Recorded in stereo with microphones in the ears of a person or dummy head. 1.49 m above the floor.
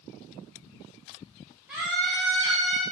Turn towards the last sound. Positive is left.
turn(degrees=-40)  # may be behind; listen again after turning